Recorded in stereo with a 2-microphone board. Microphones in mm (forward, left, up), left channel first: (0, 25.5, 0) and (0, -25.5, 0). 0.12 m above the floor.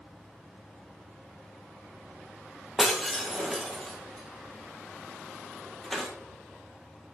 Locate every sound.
2.8 s breaking glass: 5° left (ahead or behind), 2.0 m